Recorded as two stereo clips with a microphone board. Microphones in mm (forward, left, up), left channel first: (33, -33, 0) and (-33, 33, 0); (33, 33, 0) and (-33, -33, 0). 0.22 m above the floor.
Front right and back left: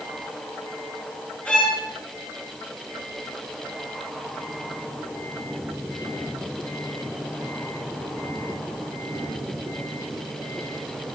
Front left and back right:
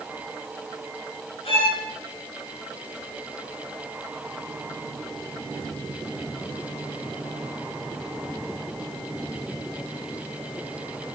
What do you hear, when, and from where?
1.4 s a violin: 35° left, 9.5 m